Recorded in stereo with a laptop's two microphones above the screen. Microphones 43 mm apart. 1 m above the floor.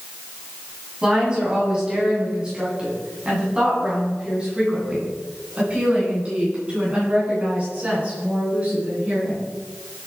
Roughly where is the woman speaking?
Centre.